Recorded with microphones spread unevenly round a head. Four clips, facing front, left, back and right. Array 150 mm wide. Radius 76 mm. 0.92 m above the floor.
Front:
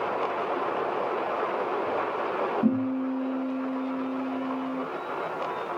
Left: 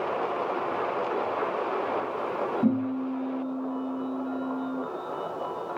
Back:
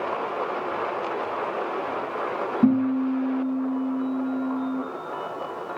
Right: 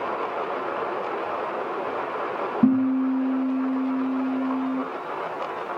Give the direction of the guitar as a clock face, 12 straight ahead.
4 o'clock.